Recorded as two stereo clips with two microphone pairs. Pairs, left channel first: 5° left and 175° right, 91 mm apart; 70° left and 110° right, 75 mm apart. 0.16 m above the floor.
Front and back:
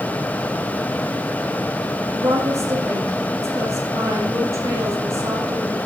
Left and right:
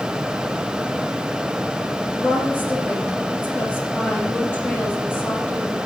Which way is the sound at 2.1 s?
130° left.